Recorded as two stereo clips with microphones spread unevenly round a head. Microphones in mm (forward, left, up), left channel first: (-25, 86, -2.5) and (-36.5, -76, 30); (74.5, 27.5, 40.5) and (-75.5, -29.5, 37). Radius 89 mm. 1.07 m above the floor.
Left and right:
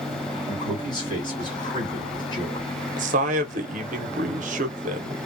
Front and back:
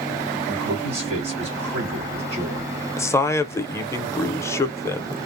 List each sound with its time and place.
0.5 s a man speaking: 145° left, 2.0 m
3.0 s a man speaking: 50° right, 0.6 m